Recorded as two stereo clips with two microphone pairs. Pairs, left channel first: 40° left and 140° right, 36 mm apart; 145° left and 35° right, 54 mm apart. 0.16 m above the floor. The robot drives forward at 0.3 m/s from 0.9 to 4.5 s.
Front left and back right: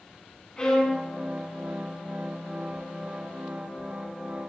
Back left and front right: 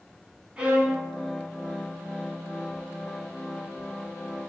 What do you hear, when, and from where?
0.6 s a violin: 10° left, 0.8 m